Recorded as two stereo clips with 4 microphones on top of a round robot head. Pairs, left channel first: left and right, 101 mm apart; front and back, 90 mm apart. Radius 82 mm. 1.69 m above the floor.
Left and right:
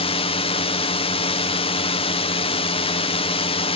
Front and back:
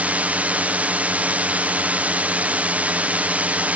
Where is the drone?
105° left.